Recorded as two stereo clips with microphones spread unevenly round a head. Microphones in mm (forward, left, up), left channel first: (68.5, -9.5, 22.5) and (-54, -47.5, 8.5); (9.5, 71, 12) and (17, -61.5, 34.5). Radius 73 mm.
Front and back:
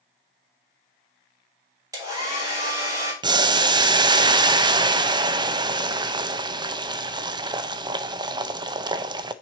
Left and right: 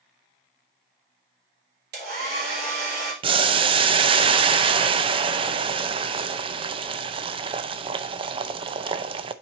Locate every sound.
1.9 s a hair dryer: 105° right, 3.5 m
3.2 s boiling: 135° right, 0.6 m